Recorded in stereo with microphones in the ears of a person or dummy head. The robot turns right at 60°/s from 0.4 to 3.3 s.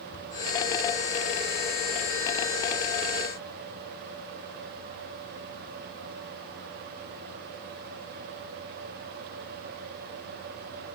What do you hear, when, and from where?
0.1 s a cupboard door: 70° left (ahead or behind), 5 m